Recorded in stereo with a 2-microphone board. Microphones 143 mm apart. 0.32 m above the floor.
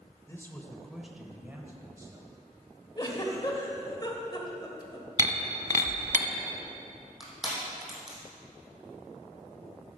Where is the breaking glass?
55° right (ahead or behind), 0.8 m.